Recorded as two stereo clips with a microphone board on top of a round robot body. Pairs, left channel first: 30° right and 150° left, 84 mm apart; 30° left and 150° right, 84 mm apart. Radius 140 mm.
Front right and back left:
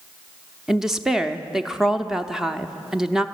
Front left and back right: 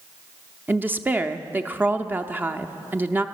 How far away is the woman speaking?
About 0.7 m.